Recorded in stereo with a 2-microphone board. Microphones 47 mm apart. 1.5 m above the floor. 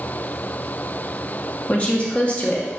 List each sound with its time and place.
1.7 s a woman speaking: 25° left (ahead or behind), 0.6 m